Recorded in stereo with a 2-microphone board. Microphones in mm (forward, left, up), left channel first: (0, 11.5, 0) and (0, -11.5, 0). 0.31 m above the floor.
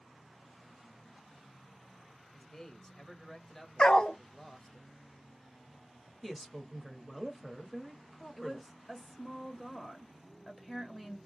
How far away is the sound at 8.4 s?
About 1.2 m.